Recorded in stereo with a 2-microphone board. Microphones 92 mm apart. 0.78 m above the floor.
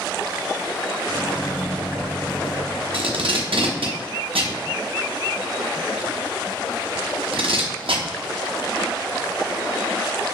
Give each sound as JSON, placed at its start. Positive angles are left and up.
{"t": 1.1, "sound": "a microwave", "side_deg": 20, "distance_m": 0.6}
{"t": 2.9, "sound": "tape being pulled", "side_deg": -80, "distance_m": 0.6}